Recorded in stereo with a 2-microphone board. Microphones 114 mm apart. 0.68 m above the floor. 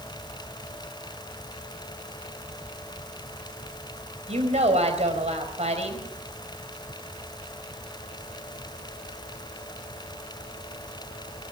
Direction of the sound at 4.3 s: 75° right (ahead or behind).